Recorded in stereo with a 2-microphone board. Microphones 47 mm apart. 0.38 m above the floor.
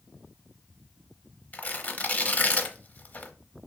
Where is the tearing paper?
35° left (ahead or behind), 0.8 m.